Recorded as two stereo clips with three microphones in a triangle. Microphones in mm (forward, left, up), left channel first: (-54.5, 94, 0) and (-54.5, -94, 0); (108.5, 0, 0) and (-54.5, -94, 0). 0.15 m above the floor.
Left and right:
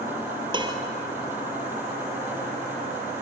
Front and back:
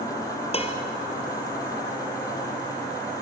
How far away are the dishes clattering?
About 2 m.